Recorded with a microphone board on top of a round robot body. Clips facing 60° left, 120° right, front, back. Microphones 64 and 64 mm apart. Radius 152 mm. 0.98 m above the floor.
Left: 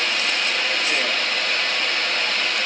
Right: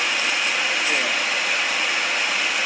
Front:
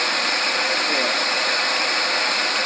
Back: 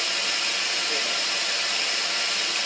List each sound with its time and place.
0.0 s running water: 40° right, 1.5 m